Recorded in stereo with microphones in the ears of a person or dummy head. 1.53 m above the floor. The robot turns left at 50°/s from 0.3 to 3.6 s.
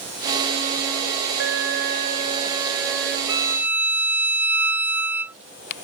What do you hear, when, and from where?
1.4 s an alarm: 100° right; by 3.2 s 170° left
3.3 s a violin: 25° right (ahead or behind); by 5.3 s 10° right (ahead or behind)